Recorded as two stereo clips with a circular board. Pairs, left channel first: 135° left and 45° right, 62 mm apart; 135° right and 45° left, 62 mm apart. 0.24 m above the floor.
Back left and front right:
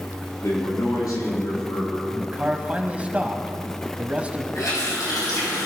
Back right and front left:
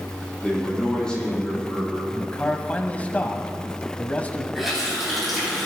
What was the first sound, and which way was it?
A man speaking, 150° left.